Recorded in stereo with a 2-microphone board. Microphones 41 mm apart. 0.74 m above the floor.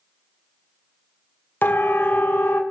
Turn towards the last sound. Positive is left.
turn(degrees=70)  # may be behind; listen again after turning